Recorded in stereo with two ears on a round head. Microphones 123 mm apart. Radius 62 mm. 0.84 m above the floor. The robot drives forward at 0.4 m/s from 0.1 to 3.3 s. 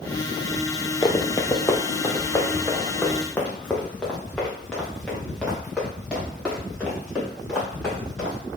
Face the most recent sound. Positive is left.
turn(degrees=5)  # may be behind; listen again after turning